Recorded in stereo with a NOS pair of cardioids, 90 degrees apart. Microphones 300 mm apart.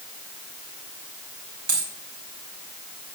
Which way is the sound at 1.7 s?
60° right.